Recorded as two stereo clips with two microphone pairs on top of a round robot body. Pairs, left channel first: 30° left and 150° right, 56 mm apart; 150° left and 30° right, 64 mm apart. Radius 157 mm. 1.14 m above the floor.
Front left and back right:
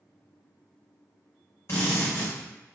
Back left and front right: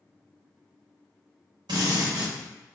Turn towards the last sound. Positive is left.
turn(degrees=-15)